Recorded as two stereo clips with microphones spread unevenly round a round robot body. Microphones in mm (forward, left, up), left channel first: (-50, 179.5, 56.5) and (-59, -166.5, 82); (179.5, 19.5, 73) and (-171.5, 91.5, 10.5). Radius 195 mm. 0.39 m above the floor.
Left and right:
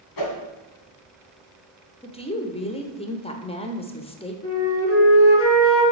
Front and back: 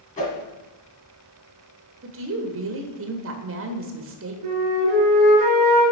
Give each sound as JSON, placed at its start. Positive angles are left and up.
{"t": 0.2, "sound": "a whoosh", "azimuth_deg": 60, "distance_m": 2.0}
{"t": 2.0, "sound": "a woman speaking", "azimuth_deg": 150, "distance_m": 1.3}
{"t": 4.4, "sound": "a flute", "azimuth_deg": 140, "distance_m": 3.5}